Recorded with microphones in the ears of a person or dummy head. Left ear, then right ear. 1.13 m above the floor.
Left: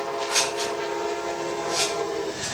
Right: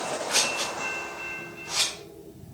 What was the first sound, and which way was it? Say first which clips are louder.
Scissors: left 1 dB; 10° right (ahead or behind).